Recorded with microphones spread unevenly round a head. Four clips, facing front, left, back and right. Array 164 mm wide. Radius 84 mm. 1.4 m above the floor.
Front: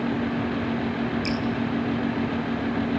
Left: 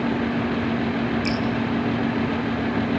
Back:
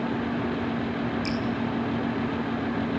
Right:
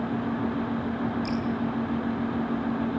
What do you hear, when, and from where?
1.2 s dripping: 40° left, 8 m